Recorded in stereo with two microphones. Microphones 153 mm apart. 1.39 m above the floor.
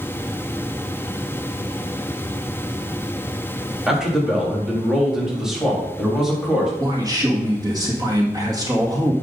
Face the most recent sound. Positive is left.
turn(degrees=-25)  # may be behind; listen again after turning